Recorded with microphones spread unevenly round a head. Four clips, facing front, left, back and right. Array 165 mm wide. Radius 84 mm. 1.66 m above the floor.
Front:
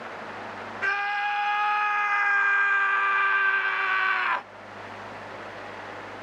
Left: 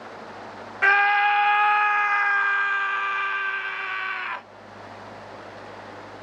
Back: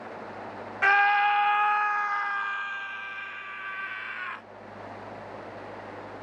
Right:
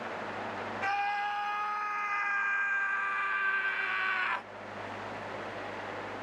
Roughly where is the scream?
Left.